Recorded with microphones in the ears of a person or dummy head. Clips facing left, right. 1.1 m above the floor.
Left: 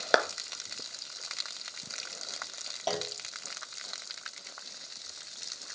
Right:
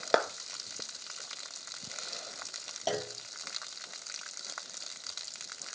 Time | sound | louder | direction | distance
0.1 | a clap | left 1 dB | 10° left (ahead or behind) | 1.2 m
2.9 | a clunk | even | 5° right (ahead or behind) | 1.2 m